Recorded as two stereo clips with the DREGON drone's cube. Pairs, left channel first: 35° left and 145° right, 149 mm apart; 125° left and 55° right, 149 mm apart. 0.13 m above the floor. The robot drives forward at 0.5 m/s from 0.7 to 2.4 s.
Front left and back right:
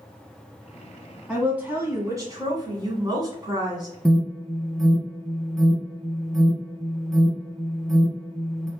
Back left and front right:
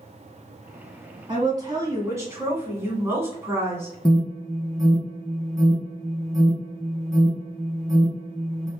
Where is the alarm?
125° left, 1.1 m.